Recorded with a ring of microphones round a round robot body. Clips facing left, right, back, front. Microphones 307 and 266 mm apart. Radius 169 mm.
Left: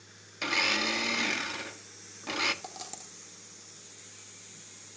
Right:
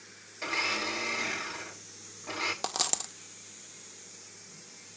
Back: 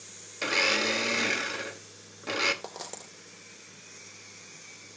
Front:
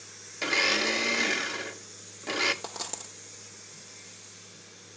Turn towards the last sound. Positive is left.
turn(degrees=-80)